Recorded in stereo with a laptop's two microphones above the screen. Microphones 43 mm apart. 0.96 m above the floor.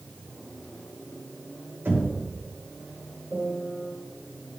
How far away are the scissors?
No scissors in this recording.